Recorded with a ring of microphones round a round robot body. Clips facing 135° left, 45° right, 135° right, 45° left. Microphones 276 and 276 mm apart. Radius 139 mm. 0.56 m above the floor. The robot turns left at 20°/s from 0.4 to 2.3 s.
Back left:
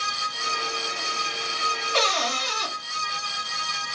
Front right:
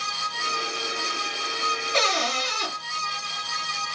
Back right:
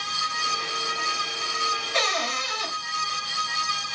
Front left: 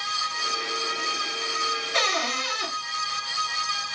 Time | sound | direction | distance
1.9 | a cupboard door | 25° left | 2.0 m